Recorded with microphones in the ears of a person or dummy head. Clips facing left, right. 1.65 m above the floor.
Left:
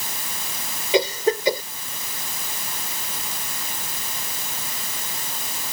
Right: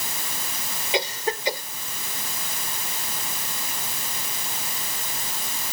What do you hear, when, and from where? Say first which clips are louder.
0.9 s a cough: left 7 dB; 85° left